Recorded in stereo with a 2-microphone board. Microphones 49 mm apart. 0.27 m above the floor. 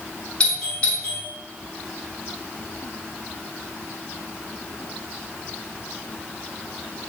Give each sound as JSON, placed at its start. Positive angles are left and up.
{"t": 0.4, "sound": "a doorbell", "side_deg": 20, "distance_m": 1.6}